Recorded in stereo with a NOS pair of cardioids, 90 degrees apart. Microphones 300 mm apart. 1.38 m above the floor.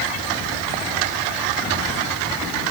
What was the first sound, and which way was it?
Only background noise.